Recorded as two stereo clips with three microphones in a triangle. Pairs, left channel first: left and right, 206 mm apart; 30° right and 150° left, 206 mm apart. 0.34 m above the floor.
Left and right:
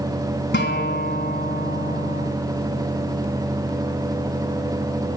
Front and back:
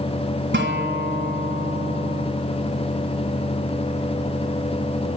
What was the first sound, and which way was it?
A guitar, 120° left.